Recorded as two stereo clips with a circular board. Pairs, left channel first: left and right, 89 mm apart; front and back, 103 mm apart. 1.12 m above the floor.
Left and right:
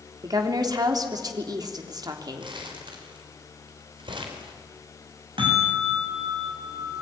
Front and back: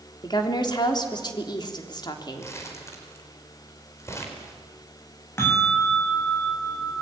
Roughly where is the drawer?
I don't hear a drawer.